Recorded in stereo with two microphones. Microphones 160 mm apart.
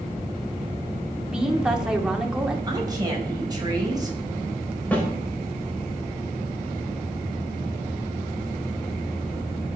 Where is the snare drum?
10° left (ahead or behind), 4.5 m.